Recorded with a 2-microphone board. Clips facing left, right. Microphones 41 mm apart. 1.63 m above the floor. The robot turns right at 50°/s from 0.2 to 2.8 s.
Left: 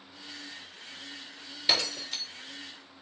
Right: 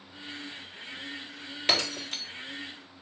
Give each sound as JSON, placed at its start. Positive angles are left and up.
{"t": 1.7, "sound": "breaking glass", "side_deg": -55, "distance_m": 1.7}